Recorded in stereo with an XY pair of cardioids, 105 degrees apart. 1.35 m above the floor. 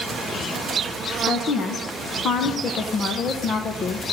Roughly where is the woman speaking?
Ahead left.